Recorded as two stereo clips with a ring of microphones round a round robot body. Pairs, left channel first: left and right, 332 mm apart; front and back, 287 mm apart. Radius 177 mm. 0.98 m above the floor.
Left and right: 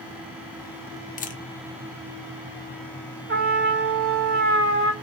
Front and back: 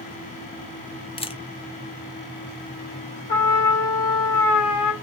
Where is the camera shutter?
50° left, 0.9 m.